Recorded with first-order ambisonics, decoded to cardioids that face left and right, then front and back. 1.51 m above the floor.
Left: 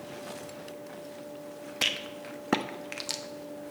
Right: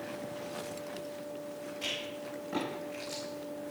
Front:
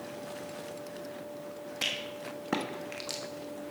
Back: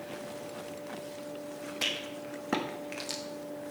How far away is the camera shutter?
I don't hear a camera shutter.